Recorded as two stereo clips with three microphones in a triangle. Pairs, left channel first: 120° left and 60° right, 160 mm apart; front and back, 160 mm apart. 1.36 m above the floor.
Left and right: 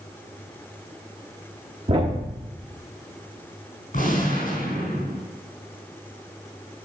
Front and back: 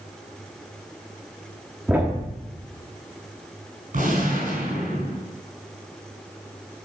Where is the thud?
100° right, 1.3 m.